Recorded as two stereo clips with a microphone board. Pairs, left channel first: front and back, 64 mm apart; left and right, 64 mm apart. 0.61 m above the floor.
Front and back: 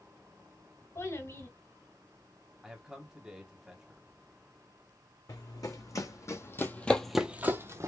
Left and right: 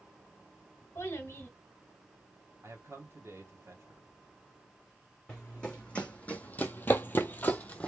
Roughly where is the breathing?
I don't hear breathing.